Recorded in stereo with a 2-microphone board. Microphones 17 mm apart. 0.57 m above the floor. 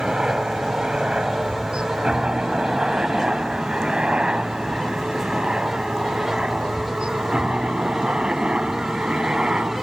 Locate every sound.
0.0 s a helicopter: 60° right (ahead or behind); by 9.8 s 75° right (ahead or behind)